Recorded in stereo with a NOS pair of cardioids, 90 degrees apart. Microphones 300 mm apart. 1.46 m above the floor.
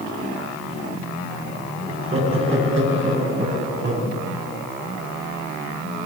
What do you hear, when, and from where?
1.9 s laughter: 45° right, 10 m; by 4.1 s 40° right, 8.5 m